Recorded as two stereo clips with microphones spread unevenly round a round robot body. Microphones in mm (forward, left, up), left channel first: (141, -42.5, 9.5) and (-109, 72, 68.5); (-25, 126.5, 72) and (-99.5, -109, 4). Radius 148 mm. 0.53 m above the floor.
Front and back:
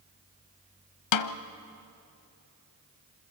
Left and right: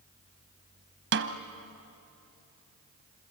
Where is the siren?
No siren in this recording.